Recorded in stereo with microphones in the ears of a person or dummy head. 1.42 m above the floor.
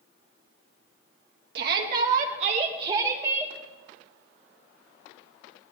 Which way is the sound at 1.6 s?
70° right (ahead or behind).